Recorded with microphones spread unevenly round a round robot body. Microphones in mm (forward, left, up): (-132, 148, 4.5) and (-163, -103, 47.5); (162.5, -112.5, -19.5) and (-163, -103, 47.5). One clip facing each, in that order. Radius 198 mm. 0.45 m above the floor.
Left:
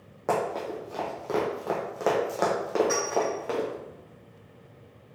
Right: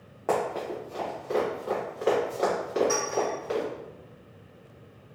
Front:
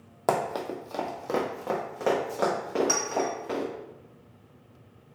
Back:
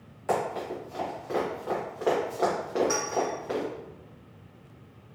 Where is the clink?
Straight ahead, 1.3 m.